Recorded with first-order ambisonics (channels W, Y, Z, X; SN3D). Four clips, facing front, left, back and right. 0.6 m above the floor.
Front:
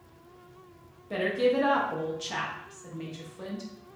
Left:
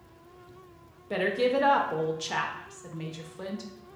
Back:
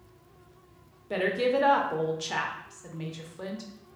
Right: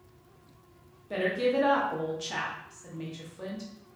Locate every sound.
1.1 s a woman speaking: 125° left, 0.6 m